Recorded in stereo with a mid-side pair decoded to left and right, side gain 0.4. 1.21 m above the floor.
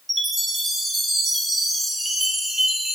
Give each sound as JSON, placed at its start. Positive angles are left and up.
{"t": 0.1, "sound": "a chime", "azimuth_deg": -20, "distance_m": 1.9}